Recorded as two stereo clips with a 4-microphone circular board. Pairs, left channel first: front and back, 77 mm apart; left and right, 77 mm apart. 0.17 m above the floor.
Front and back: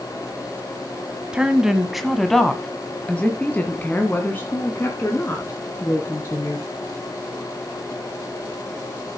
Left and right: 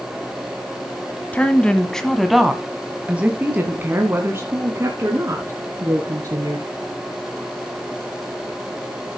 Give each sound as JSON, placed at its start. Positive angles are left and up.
{"t": 1.3, "sound": "a woman speaking", "azimuth_deg": 120, "distance_m": 1.4}